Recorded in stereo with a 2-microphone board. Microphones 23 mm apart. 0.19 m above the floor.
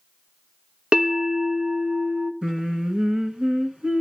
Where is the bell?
50° right (ahead or behind), 1.3 m.